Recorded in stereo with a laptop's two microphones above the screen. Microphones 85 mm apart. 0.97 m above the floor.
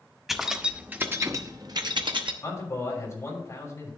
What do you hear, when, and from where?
0.3 s keys jangling: centre (ahead or behind), 1.1 m; by 2.3 s 70° right (ahead or behind), 1.0 m
2.4 s a man speaking: 35° left (ahead or behind), 3 m